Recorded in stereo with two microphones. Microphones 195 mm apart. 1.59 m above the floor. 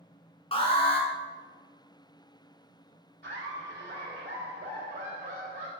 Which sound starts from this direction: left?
An alarm, at 0.5 s.